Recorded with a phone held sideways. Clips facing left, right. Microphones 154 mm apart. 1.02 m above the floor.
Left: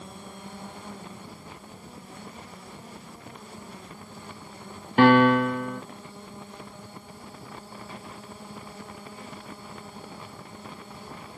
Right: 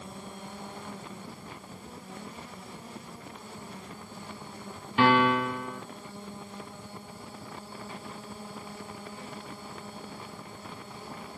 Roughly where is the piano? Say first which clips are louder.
Left 6 dB; left.